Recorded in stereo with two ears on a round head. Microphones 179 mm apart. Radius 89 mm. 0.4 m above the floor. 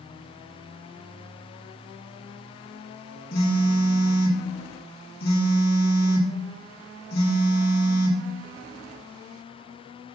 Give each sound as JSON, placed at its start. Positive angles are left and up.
{"t": 3.3, "sound": "a phone buzzing", "side_deg": 50, "distance_m": 1.5}